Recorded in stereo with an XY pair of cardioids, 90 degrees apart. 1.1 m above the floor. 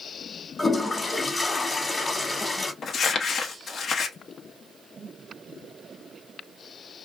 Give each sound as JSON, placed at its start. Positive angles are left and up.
{"t": 0.6, "sound": "a toilet flushing", "azimuth_deg": 25, "distance_m": 1.2}
{"t": 2.8, "sound": "crumpling", "azimuth_deg": 60, "distance_m": 0.7}